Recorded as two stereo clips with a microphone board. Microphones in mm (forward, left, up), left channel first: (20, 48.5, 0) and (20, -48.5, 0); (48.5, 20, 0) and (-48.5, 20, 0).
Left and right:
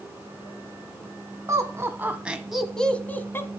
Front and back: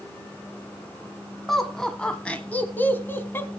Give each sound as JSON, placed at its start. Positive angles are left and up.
{"t": 1.5, "sound": "laughter", "azimuth_deg": -85, "distance_m": 1.2}